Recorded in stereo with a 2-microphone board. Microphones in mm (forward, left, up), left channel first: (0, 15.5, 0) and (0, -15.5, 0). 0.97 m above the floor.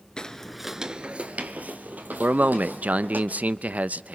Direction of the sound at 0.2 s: 25° left (ahead or behind).